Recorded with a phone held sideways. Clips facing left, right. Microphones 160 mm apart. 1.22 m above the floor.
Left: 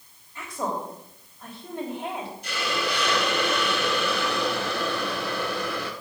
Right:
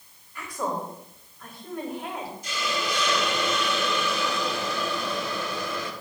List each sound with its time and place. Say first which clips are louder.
0.3 s a woman speaking: even; 25° left (ahead or behind), 3.5 m
2.4 s a hiss: left 2 dB; 60° left (ahead or behind), 1.4 m